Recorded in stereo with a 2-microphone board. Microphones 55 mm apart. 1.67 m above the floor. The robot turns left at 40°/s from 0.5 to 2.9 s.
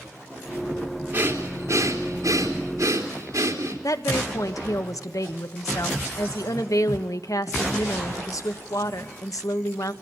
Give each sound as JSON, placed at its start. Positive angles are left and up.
{"t": 1.1, "sound": "breathing", "side_deg": -30, "distance_m": 3.5}
{"t": 3.8, "sound": "a woman speaking", "side_deg": 75, "distance_m": 1.3}